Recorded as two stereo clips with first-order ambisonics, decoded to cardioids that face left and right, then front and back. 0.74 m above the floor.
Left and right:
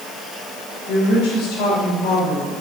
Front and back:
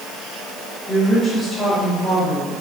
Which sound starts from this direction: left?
A woman speaking, at 0.9 s.